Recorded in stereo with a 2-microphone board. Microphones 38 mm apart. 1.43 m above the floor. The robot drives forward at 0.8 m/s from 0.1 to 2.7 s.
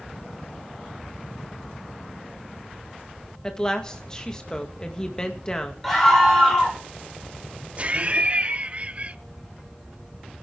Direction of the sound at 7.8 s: 35° right (ahead or behind).